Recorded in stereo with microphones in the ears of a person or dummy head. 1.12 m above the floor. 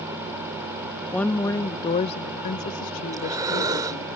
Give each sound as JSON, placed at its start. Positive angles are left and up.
{"t": 1.1, "sound": "a woman speaking", "side_deg": 0}
{"t": 3.1, "sound": "breathing", "side_deg": -20}